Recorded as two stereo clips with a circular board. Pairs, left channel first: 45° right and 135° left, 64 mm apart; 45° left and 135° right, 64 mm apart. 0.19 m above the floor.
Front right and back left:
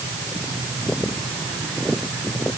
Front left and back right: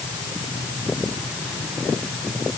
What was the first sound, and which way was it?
Only background noise.